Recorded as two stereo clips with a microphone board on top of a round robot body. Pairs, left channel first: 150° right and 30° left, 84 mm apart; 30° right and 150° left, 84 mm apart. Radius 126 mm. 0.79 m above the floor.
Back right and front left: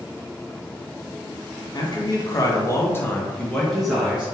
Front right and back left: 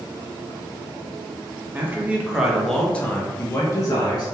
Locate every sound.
1.7 s a man speaking: 150° right, 1.1 m; by 4.3 s 45° right, 1.1 m